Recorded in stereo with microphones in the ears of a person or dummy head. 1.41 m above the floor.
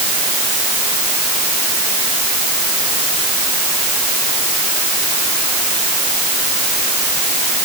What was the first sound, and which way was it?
Only background noise.